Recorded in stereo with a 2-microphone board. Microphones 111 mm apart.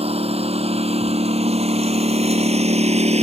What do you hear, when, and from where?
0.0 s a lawn mower: 65° right (ahead or behind); by 3.2 s 80° right